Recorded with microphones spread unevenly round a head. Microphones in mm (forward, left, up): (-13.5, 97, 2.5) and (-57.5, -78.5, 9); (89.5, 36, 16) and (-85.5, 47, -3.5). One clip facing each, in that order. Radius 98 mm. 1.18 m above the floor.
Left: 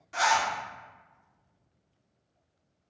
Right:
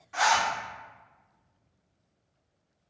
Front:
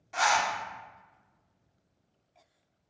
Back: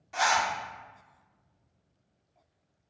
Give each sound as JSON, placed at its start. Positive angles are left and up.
{"t": 0.1, "sound": "a zipper", "azimuth_deg": 95, "distance_m": 0.9}